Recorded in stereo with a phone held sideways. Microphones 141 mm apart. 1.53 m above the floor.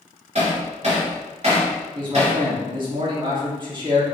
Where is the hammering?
55° right (ahead or behind), 3 m.